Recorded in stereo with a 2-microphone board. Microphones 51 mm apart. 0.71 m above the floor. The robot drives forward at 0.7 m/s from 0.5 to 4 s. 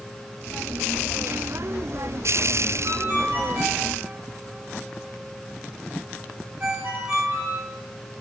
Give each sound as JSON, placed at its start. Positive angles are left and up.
{"t": 2.8, "sound": "a ringtone", "side_deg": -50, "distance_m": 2.5}